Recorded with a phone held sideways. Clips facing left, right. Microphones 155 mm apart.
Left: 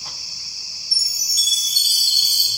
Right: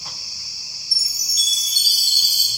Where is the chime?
50° left (ahead or behind), 5 m.